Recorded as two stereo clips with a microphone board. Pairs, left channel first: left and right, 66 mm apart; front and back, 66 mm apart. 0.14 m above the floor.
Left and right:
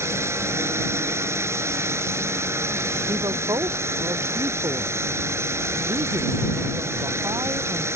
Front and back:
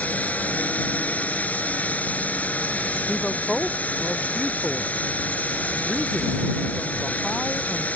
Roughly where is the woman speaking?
Right.